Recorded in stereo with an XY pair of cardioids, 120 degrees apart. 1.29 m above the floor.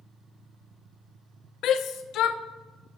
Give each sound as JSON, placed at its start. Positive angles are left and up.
{"t": 1.6, "sound": "a shout", "azimuth_deg": 70, "distance_m": 0.9}